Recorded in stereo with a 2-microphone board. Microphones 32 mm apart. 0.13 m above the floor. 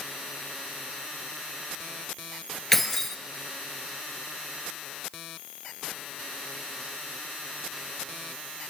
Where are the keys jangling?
10° left (ahead or behind), 1.6 m.